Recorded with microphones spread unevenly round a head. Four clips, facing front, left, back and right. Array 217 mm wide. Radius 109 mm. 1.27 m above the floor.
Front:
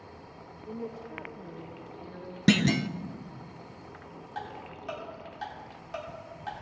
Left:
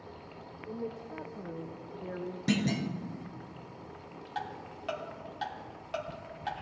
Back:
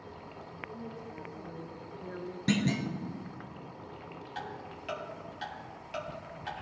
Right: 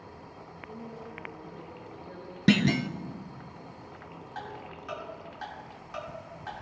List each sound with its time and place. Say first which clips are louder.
0.7 s a woman speaking: left 5 dB, front 8 dB; 35° left, 0.7 m; by 2.4 s 110° left, 1.0 m
2.5 s a clunk: right 6 dB, front 5 dB; 50° right, 0.5 m
4.3 s ticking: left 2 dB, front 3 dB; 75° left, 1.5 m